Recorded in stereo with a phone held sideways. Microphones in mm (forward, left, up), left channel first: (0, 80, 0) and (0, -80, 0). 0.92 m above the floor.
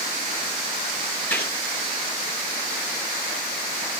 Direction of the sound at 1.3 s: 10° left (ahead or behind).